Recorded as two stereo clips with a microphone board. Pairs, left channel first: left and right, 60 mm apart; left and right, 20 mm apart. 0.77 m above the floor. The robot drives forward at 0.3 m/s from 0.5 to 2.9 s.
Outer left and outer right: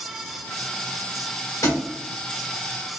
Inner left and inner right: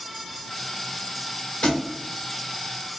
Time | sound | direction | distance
1.6 | a thud | 65° left (ahead or behind) | 1.1 m